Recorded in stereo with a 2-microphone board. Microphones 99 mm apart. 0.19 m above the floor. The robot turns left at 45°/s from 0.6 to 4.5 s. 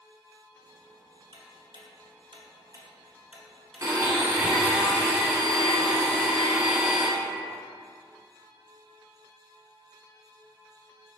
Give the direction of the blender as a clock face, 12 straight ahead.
4 o'clock.